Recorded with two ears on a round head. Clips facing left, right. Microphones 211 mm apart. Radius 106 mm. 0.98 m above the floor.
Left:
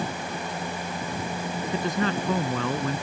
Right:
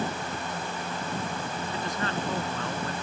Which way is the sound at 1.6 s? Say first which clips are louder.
Left 9 dB; 65° left (ahead or behind).